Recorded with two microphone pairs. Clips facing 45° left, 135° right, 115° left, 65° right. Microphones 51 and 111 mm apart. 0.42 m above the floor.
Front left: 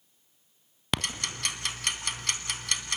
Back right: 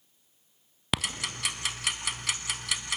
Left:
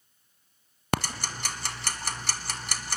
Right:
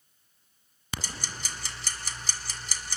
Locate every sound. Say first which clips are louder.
0.9 s ticking: even, left 9 dB; 140° left, 1.6 m